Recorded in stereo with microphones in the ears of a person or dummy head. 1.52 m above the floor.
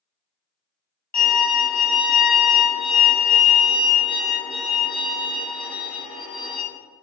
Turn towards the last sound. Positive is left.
turn(degrees=10)  # may be behind; listen again after turning